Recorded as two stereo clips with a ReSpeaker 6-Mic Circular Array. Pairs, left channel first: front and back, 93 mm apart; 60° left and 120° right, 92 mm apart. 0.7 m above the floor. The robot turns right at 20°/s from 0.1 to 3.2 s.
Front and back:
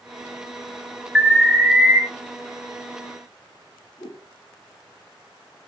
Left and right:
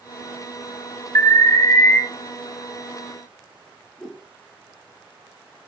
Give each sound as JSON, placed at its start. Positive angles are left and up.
{"t": 1.1, "sound": "an alarm", "azimuth_deg": 95, "distance_m": 1.9}
{"t": 4.0, "sound": "a whoosh", "azimuth_deg": -25, "distance_m": 3.0}